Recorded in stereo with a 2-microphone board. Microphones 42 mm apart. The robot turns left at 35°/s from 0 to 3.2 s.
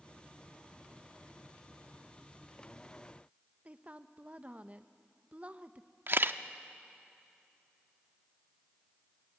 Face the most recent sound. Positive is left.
turn(degrees=-50)  # may be behind; listen again after turning